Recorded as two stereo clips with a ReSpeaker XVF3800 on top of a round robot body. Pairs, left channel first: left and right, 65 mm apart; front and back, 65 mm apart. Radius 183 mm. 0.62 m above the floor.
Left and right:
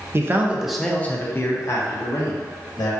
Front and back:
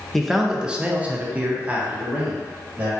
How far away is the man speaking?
About 0.6 m.